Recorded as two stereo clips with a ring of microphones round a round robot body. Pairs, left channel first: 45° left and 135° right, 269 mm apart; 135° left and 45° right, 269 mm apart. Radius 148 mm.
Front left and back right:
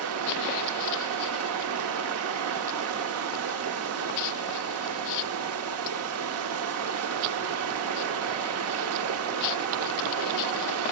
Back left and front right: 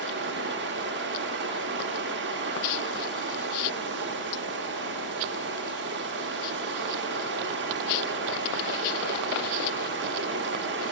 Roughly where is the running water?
Right.